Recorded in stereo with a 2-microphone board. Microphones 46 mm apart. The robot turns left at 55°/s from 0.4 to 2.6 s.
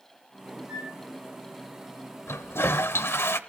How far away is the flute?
About 4 m.